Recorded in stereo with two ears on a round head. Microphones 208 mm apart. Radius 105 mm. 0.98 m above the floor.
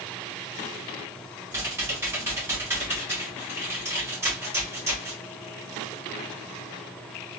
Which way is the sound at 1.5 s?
10° right (ahead or behind).